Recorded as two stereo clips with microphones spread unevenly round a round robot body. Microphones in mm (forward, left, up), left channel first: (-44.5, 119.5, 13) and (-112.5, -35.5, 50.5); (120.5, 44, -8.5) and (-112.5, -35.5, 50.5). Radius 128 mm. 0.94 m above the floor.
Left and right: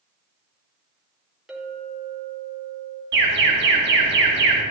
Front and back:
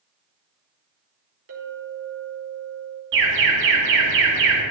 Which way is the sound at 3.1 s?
120° right.